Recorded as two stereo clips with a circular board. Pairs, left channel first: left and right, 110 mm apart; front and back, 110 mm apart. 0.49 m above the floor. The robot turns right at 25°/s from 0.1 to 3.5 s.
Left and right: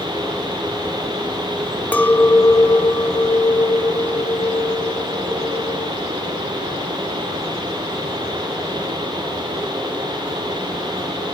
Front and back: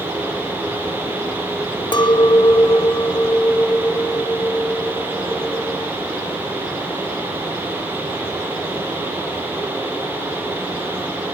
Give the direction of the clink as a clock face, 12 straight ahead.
11 o'clock.